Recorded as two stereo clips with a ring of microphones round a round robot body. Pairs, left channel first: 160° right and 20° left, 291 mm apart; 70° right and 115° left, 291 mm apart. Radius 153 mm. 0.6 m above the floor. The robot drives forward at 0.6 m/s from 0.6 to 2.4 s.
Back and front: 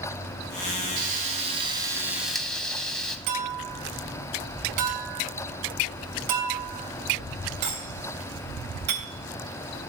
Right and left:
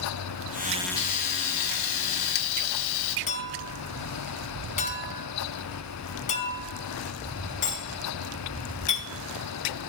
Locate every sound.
1.0 s frying: 40° right, 1.7 m; by 3.2 s 70° right, 1.2 m
3.3 s a clink: straight ahead, 3 m